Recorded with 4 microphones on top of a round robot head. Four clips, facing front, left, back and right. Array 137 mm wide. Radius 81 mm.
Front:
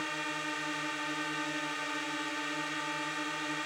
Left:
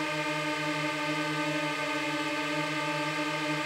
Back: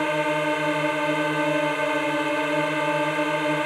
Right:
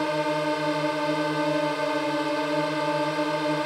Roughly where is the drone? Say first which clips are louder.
Right 7 dB, back 15 dB; behind right.